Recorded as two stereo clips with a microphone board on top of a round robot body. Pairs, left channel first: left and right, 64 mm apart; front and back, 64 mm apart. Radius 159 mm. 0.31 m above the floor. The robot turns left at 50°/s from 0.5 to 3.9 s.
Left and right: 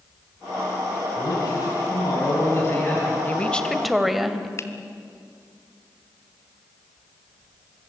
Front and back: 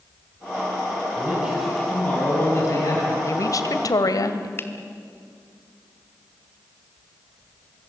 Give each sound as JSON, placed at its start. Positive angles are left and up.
{"t": 1.2, "sound": "a man speaking", "azimuth_deg": 115, "distance_m": 5.0}
{"t": 3.2, "sound": "a woman speaking", "azimuth_deg": 30, "distance_m": 2.0}
{"t": 4.6, "sound": "a finger snap", "azimuth_deg": 50, "distance_m": 1.9}